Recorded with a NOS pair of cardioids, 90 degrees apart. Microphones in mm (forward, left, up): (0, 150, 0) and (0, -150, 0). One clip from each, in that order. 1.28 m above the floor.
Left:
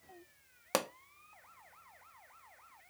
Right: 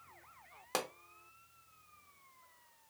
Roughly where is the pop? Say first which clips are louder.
Left 4 dB; ahead left.